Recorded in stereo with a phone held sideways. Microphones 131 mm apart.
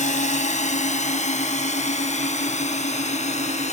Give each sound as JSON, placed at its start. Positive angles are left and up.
{"t": 0.0, "sound": "a drone", "side_deg": 70}